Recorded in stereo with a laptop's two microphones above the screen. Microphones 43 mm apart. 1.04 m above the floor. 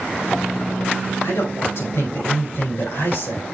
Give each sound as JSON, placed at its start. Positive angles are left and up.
{"t": 1.2, "sound": "a man speaking", "side_deg": 70, "distance_m": 5.0}